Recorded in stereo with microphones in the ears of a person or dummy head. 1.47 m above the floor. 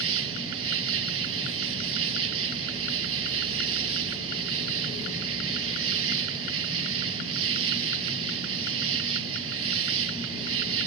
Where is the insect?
75° right (ahead or behind).